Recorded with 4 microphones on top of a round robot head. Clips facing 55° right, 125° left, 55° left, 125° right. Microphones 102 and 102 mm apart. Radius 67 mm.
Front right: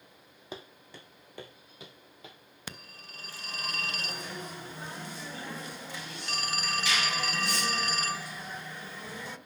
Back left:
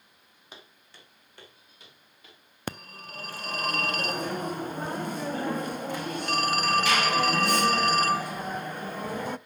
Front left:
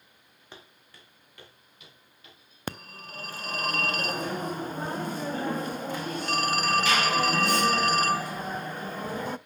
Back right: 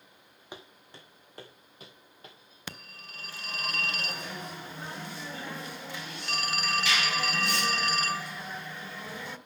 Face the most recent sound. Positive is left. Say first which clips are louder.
# back left 10 dB, front left 8 dB
turn(degrees=95)